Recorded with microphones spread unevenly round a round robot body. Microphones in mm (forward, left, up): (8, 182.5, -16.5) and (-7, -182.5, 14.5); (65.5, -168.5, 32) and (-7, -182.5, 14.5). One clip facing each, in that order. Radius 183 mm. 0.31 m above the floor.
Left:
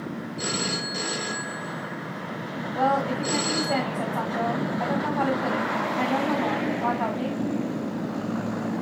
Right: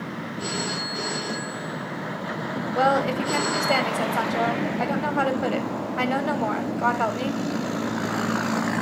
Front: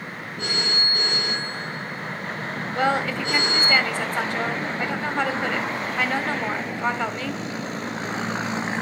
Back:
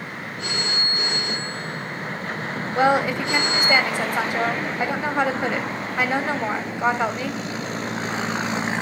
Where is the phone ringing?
65° left, 4 m.